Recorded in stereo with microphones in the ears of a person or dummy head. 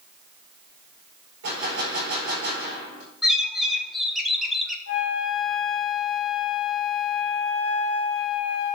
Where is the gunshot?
80° right, 4.5 m.